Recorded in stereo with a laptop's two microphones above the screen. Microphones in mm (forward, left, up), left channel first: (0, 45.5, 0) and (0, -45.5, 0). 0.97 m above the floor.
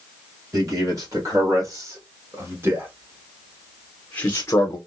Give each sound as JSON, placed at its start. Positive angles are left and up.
{"t": 0.5, "sound": "a man speaking", "side_deg": -45, "distance_m": 2.0}